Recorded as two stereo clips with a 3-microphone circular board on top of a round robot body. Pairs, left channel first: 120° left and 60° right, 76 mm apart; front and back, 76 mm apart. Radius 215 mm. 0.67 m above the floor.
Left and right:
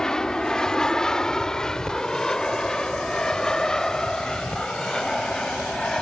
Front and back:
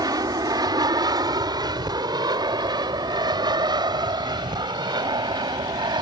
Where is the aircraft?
160° right.